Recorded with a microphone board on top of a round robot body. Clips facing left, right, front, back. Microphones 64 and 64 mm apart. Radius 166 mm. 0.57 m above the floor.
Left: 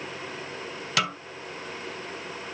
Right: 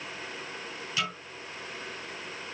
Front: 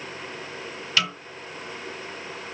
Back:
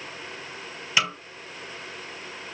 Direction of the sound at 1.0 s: 110° left.